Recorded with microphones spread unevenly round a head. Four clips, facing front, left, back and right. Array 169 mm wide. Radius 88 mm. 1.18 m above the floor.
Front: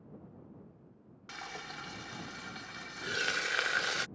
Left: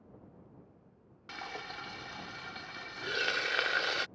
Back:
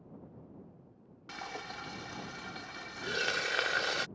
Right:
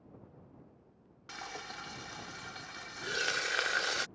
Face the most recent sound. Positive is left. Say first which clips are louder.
# left 2 dB, back 2 dB
turn(degrees=160)